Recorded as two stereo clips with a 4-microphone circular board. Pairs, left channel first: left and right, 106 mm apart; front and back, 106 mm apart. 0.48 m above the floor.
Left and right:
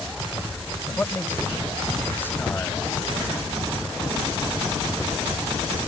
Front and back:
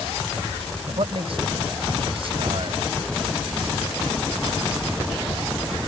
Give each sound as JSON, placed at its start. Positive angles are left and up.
{"t": 0.9, "sound": "a man speaking", "azimuth_deg": 160}